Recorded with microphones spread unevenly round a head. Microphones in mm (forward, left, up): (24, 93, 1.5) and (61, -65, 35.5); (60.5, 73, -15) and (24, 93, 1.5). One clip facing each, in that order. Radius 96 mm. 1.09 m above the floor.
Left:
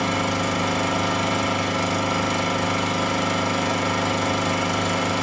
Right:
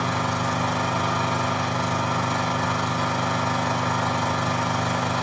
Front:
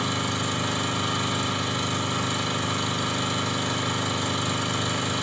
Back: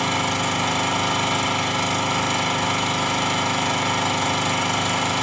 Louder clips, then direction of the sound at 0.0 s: Left 3 dB, back 5 dB; 140° left.